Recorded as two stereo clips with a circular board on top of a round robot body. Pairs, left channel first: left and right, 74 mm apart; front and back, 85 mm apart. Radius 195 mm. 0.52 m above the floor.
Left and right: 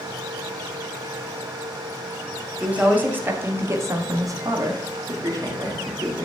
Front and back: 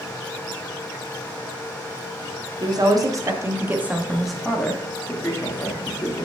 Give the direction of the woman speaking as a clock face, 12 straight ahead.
5 o'clock.